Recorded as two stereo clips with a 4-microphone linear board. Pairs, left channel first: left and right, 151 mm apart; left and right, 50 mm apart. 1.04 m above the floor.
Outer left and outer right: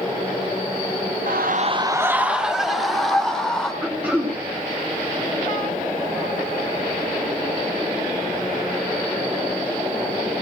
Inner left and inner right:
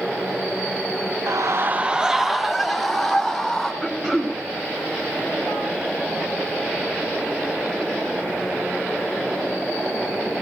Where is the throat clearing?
10° right (ahead or behind), 3 m.